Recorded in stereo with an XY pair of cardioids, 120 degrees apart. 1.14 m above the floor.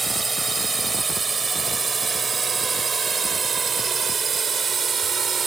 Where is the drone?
20° right; by 5.5 s 40° right.